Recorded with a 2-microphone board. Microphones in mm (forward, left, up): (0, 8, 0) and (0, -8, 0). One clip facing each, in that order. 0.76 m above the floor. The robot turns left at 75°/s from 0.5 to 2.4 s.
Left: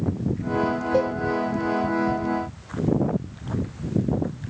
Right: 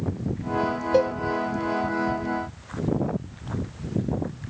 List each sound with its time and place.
0.9 s a cowbell: 45° right (ahead or behind), 0.7 m; by 1.1 s 30° right (ahead or behind), 0.7 m